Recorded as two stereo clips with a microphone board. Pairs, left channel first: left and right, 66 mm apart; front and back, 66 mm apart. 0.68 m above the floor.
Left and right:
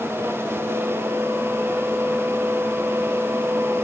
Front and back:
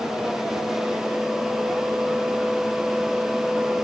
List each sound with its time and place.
Only background noise.